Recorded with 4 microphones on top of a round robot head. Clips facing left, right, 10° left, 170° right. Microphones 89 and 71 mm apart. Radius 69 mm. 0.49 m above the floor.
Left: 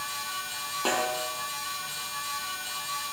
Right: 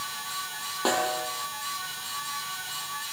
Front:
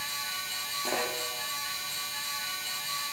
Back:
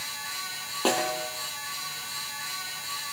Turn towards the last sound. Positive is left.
turn(degrees=-165)